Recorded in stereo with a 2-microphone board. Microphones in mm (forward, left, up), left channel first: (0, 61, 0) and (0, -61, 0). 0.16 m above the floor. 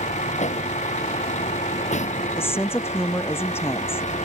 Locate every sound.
0.0 s a vehicle: 75° left (ahead or behind)
2.4 s a woman speaking: 20° left (ahead or behind)